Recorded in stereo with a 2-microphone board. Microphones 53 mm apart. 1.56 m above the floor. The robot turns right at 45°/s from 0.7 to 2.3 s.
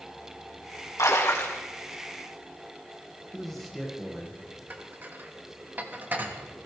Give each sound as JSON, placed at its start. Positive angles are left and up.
{"t": 1.0, "sound": "a splash", "side_deg": 70, "distance_m": 2.0}
{"t": 3.3, "sound": "a man speaking", "side_deg": 5, "distance_m": 1.8}
{"t": 4.7, "sound": "dishes clattering", "side_deg": -35, "distance_m": 1.4}